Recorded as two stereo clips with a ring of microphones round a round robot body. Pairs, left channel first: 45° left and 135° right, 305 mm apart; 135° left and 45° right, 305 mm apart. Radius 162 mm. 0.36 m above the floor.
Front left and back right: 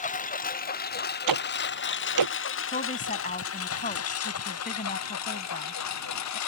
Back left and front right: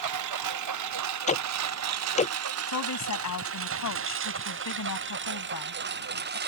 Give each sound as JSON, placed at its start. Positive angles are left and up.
{"t": 0.0, "sound": "a lawn mower", "azimuth_deg": -20}
{"t": 1.3, "sound": "ticking", "azimuth_deg": -160}
{"t": 2.7, "sound": "a woman speaking", "azimuth_deg": 105}